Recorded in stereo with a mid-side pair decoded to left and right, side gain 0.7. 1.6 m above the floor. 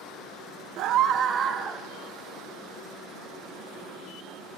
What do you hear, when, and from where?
0.8 s a scream: 60° right, 0.5 m; by 1.9 s 30° right, 1.1 m